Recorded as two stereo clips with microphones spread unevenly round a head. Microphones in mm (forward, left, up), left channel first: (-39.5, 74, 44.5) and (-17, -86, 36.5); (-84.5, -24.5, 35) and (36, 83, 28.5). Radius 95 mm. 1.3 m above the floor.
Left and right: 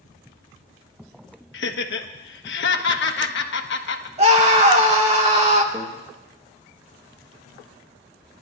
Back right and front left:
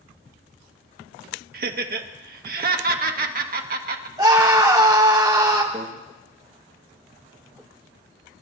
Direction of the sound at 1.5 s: 75° left.